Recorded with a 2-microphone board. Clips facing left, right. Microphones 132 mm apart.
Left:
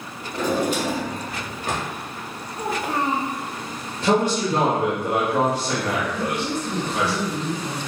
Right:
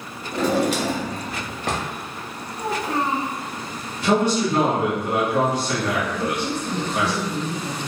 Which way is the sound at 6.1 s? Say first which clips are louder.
Even; 5° left (ahead or behind).